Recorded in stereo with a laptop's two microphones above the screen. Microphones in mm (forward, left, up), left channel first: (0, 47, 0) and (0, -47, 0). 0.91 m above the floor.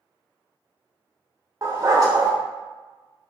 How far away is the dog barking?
About 0.7 m.